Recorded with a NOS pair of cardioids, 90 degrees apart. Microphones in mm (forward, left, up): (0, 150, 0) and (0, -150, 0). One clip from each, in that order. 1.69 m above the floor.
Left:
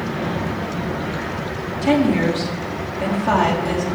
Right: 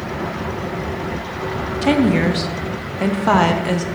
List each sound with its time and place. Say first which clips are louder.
1.8 s a woman speaking: right 1 dB; 40° right, 0.9 m